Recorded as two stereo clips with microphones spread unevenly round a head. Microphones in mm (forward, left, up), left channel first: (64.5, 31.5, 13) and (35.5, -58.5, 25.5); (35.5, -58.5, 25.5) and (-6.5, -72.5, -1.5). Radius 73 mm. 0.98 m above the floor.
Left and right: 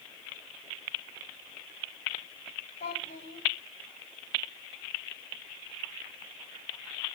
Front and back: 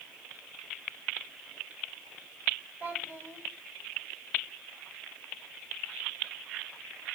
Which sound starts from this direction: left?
A child speaking, at 2.8 s.